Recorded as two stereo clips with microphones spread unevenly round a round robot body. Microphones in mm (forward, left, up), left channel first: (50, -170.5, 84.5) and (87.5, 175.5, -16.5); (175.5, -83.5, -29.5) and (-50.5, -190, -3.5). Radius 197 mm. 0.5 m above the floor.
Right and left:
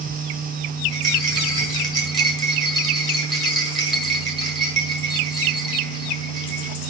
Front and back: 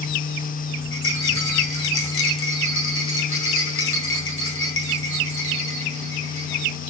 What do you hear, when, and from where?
0.9 s a rattle: 5° right, 4 m